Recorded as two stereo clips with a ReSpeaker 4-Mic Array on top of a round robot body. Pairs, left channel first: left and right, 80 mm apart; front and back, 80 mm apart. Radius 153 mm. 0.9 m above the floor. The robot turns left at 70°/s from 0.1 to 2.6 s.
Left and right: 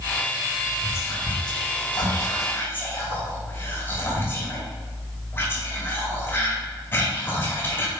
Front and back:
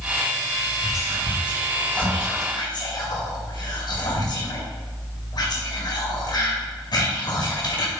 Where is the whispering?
155° left, 2 m; by 7.9 s 30° left, 2 m.